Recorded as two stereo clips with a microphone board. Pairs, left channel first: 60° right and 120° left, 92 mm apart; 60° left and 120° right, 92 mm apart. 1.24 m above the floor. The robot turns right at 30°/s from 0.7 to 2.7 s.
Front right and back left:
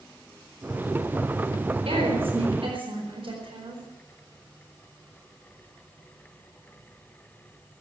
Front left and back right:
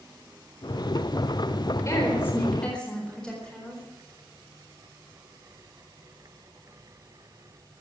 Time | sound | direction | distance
1.9 | a woman speaking | 115° left | 4 m